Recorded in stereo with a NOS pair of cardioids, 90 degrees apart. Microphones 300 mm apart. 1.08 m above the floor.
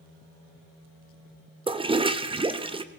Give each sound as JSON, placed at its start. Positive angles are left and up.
{"t": 1.7, "sound": "a toilet flushing", "azimuth_deg": -15, "distance_m": 0.9}